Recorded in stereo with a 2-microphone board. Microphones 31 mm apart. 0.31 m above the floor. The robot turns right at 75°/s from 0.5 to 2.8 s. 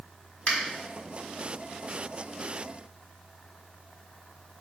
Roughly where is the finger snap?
Left.